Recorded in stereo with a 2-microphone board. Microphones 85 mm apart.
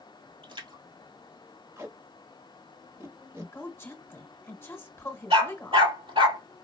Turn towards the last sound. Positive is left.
turn(degrees=-80)